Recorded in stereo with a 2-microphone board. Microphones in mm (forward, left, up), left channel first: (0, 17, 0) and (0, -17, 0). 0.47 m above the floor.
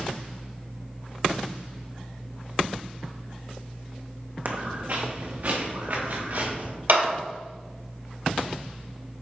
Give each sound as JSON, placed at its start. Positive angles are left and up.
{"t": 4.5, "sound": "footsteps", "side_deg": -55, "distance_m": 1.0}
{"t": 6.9, "sound": "a clap", "side_deg": -60, "distance_m": 2.0}